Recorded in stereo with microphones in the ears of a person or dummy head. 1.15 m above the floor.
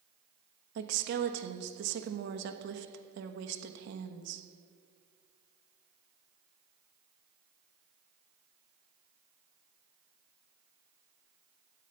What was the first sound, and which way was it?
A woman speaking, 65° right (ahead or behind).